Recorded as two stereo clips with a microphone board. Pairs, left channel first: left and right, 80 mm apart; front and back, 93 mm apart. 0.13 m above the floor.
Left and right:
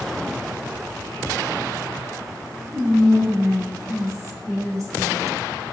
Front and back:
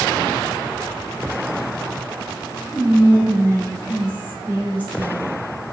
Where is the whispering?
60° right, 1.6 m.